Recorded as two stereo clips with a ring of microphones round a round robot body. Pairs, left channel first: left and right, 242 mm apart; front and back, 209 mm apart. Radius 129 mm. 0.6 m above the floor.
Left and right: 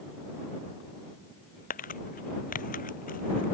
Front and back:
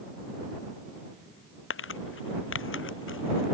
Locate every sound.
1.7 s crumpling: 30° left